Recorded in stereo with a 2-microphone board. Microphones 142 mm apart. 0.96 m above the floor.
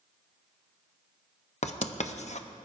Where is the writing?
55° left (ahead or behind), 0.6 m.